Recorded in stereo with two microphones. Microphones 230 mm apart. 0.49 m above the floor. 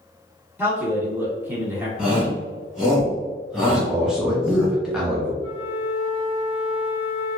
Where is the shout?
Centre (ahead or behind), 1.5 m.